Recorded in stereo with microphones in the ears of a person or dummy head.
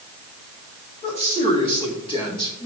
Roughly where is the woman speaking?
Left.